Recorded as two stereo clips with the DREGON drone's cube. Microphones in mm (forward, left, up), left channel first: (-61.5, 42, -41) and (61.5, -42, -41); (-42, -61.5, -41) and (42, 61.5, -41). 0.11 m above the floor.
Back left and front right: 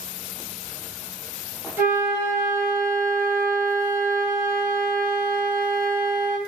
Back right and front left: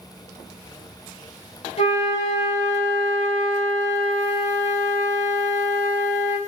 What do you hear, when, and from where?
1.8 s a flute: 105° right, 0.9 m